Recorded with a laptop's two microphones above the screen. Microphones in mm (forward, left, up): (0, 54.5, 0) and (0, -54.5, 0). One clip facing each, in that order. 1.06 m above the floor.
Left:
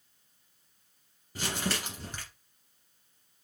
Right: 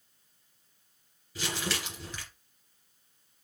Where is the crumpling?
45° left (ahead or behind), 2 m.